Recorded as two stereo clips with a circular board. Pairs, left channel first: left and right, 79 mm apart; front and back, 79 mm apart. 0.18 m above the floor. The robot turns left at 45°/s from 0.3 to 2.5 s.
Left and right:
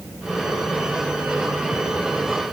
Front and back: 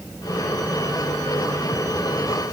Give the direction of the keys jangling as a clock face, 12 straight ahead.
No keys jangling in this recording.